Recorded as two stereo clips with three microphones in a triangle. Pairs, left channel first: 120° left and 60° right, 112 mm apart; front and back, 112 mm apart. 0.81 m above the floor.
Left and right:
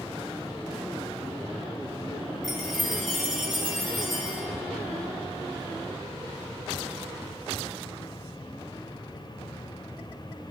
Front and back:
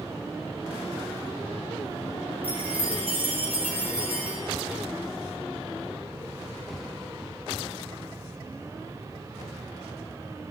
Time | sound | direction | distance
2.4 | a chime | 150° right | 3 m